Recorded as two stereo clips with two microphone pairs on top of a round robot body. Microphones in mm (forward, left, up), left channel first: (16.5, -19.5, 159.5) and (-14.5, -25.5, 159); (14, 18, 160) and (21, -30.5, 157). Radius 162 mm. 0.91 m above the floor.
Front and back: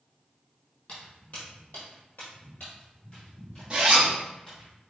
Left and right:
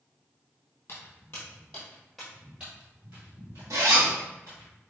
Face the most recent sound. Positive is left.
turn(degrees=-105)